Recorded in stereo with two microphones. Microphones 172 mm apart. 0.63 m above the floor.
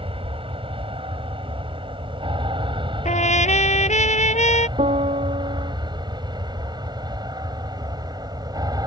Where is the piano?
40° right (ahead or behind).